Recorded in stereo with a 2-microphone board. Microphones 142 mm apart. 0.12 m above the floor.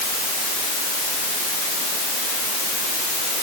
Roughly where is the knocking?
I don't hear knocking.